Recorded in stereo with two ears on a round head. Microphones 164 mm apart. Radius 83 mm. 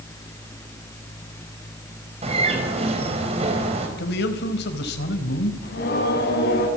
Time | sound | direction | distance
2.2 | a bird | 35° right (ahead or behind) | 5 m
4.0 | a man speaking | 65° left (ahead or behind) | 4 m
5.6 | singing | 60° left (ahead or behind) | 8 m